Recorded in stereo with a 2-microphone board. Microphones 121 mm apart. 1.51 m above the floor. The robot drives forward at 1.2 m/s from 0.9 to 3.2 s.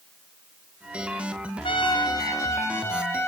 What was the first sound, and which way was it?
A trumpet, 45° left (ahead or behind).